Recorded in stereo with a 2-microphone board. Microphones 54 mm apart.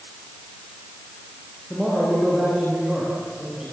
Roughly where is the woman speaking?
Centre.